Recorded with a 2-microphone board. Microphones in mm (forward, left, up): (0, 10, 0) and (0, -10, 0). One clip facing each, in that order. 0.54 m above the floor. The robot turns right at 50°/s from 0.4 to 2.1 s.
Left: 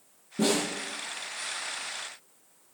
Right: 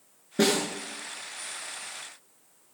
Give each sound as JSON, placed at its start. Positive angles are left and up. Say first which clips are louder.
{"t": 0.4, "sound": "a snare drum", "louder": "right 2 dB", "side_deg": -80, "distance_m": 8.0}